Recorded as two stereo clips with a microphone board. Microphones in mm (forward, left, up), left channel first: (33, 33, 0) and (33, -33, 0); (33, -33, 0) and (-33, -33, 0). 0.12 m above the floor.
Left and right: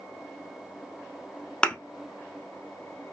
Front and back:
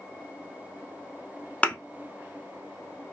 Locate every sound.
1.6 s a thud: 35° left, 0.7 m